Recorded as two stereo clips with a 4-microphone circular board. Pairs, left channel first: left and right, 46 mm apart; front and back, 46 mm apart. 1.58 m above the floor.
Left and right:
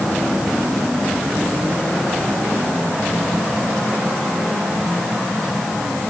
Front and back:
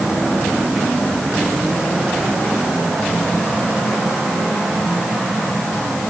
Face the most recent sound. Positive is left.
No sound to turn to.